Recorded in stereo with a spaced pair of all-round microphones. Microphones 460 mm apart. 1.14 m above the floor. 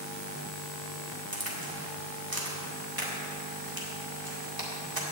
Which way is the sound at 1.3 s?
50° right (ahead or behind).